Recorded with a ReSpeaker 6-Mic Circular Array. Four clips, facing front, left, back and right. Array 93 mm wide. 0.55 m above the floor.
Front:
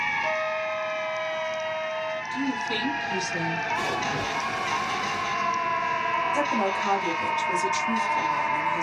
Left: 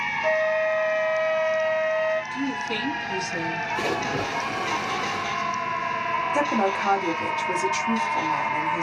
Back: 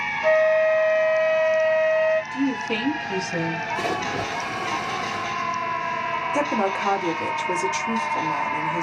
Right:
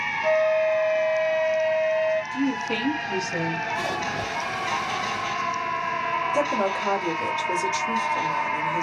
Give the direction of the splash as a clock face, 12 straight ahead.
8 o'clock.